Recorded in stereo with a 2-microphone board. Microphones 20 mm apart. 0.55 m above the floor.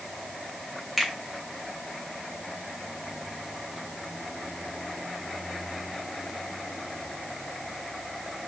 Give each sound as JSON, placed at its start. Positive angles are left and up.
{"t": 1.0, "sound": "a finger snap", "side_deg": 10, "distance_m": 2.5}